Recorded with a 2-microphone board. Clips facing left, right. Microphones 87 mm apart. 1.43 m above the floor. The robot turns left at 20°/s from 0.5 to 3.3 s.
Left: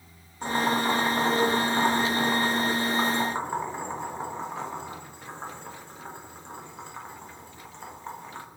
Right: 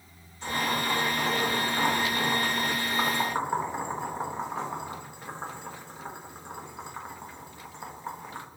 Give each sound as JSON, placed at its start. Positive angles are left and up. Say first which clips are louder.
{"t": 0.4, "sound": "boiling", "louder": "left 4 dB", "side_deg": 50, "distance_m": 1.3}